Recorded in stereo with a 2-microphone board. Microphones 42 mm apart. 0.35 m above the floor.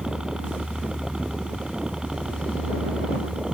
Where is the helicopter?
15° right (ahead or behind).